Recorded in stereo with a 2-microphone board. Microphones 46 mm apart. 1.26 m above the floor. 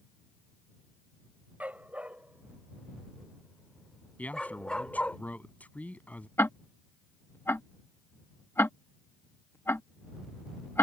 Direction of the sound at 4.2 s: 35° left (ahead or behind).